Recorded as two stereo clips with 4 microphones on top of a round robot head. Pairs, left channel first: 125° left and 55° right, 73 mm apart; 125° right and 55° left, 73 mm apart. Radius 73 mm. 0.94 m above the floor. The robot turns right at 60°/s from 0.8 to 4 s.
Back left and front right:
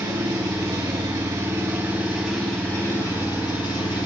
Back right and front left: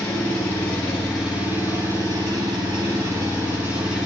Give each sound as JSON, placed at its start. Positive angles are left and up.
{"t": 0.0, "sound": "an engine running", "azimuth_deg": -55, "distance_m": 7.0}